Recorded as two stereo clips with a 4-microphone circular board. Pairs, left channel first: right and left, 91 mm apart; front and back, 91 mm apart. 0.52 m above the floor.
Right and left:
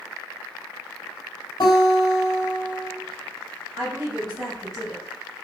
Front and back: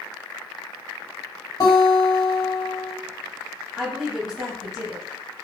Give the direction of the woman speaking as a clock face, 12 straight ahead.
9 o'clock.